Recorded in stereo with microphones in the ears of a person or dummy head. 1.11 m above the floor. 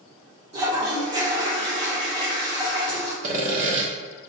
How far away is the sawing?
About 0.9 m.